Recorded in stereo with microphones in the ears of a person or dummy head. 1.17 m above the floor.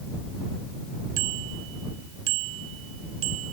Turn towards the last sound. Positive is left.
turn(degrees=-75)  # may be behind; listen again after turning